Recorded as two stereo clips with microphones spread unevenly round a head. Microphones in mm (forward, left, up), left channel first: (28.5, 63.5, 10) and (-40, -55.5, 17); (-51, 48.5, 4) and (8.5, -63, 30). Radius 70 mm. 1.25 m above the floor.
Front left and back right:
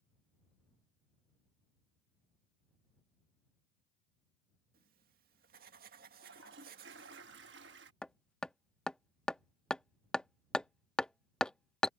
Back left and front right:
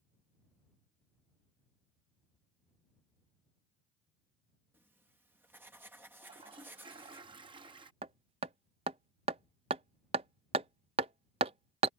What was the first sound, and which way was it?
Writing, 140° right.